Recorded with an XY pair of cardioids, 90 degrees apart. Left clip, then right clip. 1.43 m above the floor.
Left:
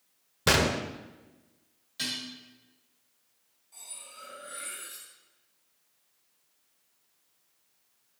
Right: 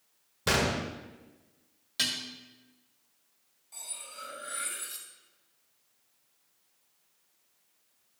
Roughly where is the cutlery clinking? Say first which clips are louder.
Right 4 dB; ahead right.